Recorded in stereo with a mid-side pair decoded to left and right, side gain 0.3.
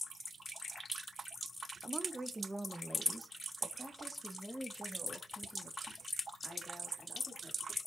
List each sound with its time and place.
1.8 s a woman speaking: 30° right, 1.4 m; by 7.8 s 15° left, 4.5 m